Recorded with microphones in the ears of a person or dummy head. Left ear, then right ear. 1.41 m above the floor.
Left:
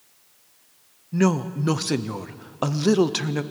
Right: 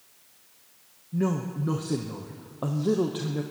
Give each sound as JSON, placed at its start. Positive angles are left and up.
{"t": 1.1, "sound": "a woman speaking", "side_deg": 40, "distance_m": 0.6}